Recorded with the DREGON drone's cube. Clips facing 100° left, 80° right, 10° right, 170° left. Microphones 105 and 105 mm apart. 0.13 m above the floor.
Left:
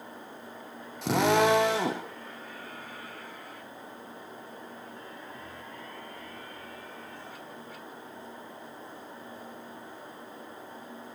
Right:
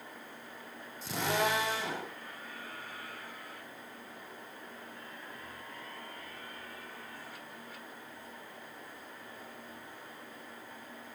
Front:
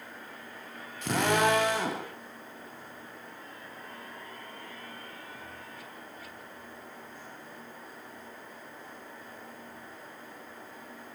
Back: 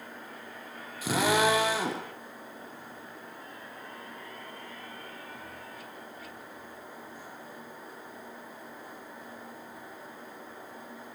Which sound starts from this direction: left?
A drill, at 1.0 s.